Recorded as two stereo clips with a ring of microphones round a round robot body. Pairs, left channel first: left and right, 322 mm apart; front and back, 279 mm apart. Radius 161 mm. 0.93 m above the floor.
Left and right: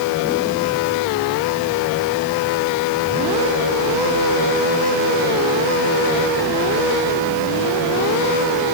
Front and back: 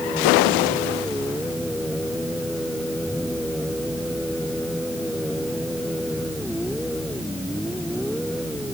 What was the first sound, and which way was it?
Only background noise.